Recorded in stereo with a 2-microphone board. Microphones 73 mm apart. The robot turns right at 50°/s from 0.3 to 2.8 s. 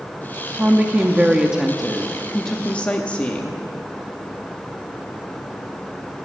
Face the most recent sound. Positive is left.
turn(degrees=20)  # may be behind; listen again after turning